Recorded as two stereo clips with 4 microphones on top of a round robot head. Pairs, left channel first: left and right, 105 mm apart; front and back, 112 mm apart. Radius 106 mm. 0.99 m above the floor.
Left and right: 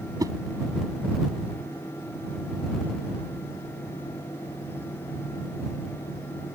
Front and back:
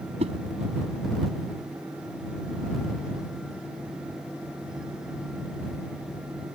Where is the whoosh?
140° right.